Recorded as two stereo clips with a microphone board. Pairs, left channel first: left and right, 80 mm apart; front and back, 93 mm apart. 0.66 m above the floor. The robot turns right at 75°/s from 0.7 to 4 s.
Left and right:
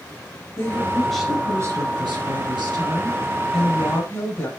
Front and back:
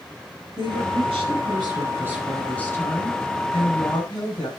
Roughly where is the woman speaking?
Behind left.